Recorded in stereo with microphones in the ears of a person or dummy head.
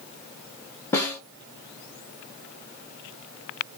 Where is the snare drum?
10° left (ahead or behind), 0.9 m.